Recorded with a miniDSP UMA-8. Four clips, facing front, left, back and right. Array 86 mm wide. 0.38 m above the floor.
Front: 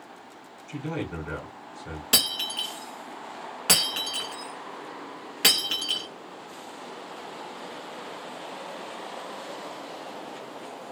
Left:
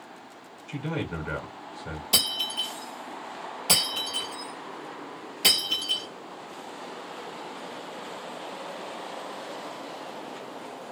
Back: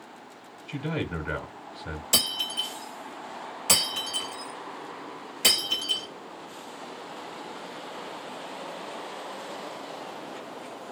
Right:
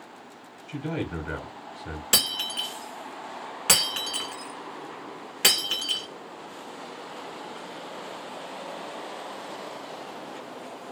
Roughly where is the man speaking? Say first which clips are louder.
Right 1 dB, back 1 dB; behind.